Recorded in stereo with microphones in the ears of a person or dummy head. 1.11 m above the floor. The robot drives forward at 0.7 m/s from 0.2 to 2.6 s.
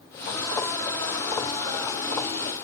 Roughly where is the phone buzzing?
No phone buzzing in this recording.